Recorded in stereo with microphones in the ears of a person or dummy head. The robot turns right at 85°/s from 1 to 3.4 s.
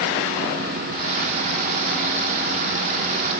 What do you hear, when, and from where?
Only background noise.